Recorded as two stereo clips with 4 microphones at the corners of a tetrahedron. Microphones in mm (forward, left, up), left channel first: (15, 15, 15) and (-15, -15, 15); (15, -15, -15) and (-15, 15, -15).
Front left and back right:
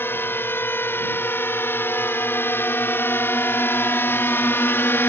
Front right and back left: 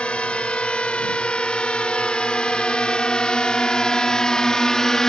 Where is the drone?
15° left; by 5.1 s 30° left.